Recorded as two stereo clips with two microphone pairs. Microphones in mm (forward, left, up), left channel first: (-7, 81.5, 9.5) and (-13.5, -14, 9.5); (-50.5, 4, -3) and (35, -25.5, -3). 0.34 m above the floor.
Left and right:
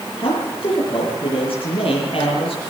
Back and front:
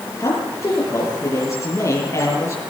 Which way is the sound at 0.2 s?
110° left.